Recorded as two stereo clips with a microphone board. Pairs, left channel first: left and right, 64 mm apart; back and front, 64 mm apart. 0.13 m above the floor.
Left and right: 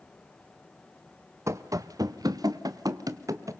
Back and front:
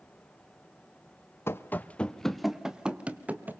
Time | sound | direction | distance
1.5 | running footsteps | 130° right | 0.9 m